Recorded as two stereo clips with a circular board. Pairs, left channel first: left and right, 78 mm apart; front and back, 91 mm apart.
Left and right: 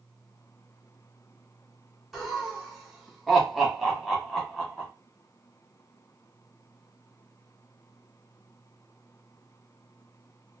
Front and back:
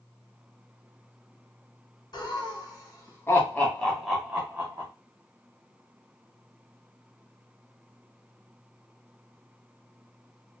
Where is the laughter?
5° right, 1.5 m; by 4.9 s straight behind, 1.1 m.